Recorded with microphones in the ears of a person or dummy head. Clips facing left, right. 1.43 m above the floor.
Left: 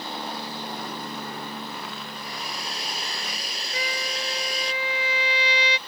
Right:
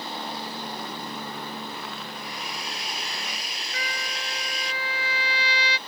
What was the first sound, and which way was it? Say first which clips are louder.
A hair dryer: even; 35° left (ahead or behind).